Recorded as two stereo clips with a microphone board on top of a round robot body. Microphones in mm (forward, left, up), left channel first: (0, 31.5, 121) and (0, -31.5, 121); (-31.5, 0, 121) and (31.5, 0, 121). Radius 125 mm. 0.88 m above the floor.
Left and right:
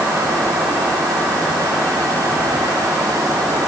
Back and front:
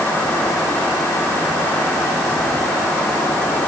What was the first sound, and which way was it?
Only background noise.